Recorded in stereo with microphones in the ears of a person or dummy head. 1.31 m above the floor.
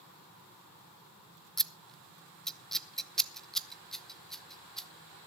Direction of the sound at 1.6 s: 5° left (ahead or behind).